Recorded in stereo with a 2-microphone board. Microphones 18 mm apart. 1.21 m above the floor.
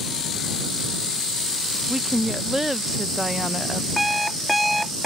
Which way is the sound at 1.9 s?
15° right (ahead or behind).